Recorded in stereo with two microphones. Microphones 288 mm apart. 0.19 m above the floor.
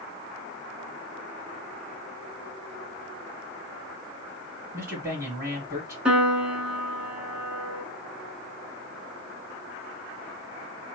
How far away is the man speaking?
About 1.2 m.